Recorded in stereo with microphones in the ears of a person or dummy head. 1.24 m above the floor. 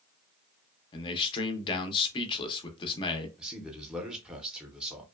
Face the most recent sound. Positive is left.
turn(degrees=-5)  # may be behind; listen again after turning